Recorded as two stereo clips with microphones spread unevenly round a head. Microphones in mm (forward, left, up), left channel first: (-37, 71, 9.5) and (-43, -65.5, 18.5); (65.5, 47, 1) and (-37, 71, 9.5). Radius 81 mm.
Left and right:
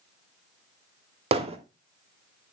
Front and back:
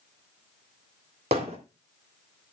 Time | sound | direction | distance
1.3 | hammering | 135° right | 3 m